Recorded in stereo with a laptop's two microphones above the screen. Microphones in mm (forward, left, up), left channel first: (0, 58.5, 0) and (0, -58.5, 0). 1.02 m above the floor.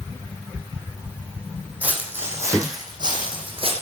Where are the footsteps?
10° right (ahead or behind), 3 m; by 3.7 s 55° right (ahead or behind), 3 m.